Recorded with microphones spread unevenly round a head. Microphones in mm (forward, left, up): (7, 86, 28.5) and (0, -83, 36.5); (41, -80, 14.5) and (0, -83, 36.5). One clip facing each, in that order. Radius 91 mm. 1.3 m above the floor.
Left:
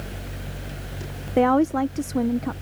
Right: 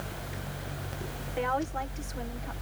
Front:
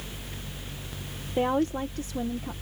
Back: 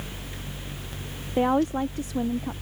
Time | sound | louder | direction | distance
1.4 | a woman speaking | left 13 dB, back 3 dB | 100° left | ?